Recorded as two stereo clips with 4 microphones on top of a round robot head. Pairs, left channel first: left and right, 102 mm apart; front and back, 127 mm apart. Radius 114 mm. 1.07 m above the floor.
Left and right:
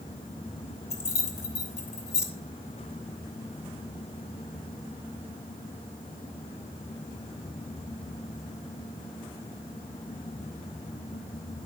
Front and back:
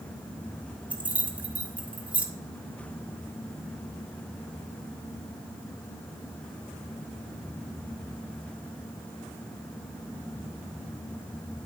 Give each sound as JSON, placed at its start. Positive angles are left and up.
{"t": 0.9, "sound": "keys jangling", "azimuth_deg": 100, "distance_m": 3.0}